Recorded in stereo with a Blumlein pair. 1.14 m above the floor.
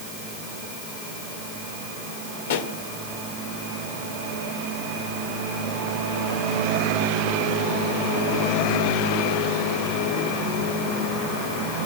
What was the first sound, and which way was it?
A pop, 60° left.